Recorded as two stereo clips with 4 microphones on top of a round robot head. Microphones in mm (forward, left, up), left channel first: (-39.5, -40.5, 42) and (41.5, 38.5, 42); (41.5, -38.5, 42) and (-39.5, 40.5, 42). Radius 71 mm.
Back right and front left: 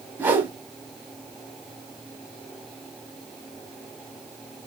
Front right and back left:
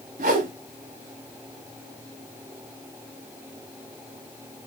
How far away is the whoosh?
About 1.1 m.